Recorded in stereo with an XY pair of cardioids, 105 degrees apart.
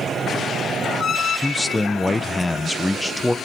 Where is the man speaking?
10° left, 1.0 m.